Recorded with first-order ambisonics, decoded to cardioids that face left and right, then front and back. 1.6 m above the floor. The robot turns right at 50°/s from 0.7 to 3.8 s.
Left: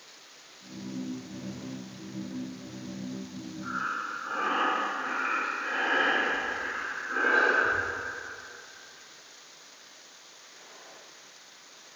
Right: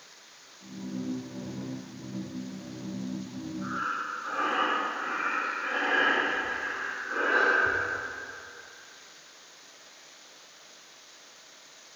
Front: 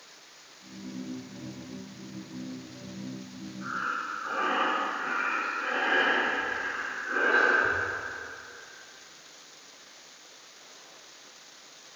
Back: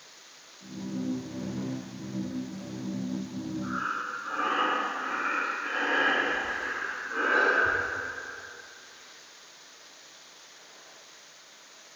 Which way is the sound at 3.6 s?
20° right.